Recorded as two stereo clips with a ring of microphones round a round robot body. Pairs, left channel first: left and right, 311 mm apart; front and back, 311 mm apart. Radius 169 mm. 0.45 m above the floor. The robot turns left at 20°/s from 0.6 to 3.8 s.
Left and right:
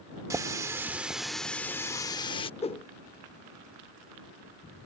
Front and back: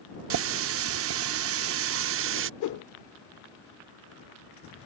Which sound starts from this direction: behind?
A running tap, at 0.3 s.